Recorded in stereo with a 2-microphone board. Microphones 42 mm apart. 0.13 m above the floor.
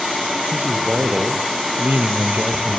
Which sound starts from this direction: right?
A man speaking, at 0.5 s.